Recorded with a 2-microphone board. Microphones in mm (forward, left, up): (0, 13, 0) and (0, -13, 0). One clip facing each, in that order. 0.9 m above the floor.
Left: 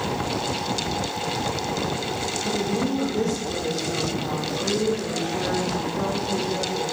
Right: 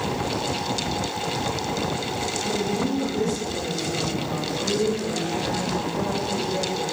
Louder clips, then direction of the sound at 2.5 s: Left 1 dB; 30° left (ahead or behind).